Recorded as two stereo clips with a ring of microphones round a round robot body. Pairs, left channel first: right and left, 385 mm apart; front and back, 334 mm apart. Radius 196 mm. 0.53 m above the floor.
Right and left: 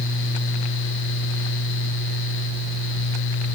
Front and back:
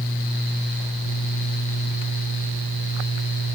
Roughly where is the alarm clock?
I don't hear an alarm clock.